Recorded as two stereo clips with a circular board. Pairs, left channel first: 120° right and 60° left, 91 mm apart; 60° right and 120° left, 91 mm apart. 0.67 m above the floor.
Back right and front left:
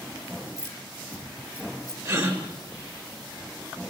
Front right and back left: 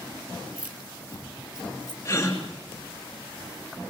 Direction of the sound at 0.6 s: 170° right.